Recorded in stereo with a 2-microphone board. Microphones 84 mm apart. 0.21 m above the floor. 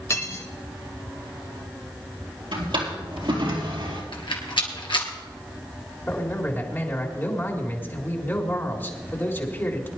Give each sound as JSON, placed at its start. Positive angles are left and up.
{"t": 0.1, "sound": "cutlery clinking", "side_deg": 35, "distance_m": 1.4}
{"t": 2.5, "sound": "a drawer", "side_deg": -80, "distance_m": 3.5}
{"t": 4.1, "sound": "a rattle", "side_deg": 75, "distance_m": 2.5}
{"t": 6.1, "sound": "a man speaking", "side_deg": 25, "distance_m": 2.5}